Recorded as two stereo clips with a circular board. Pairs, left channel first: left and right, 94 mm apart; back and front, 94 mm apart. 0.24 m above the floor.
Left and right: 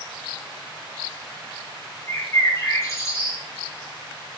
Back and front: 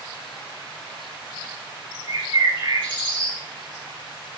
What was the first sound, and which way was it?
A bird, 30° left.